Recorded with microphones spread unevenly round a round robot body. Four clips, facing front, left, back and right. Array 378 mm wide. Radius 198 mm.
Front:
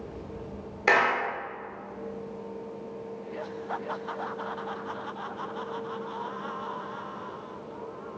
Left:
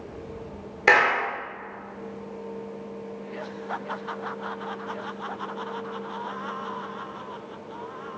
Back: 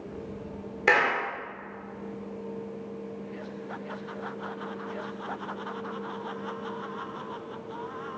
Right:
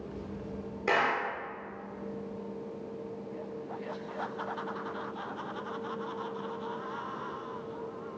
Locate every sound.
0.9 s a clap: 90° left, 4.5 m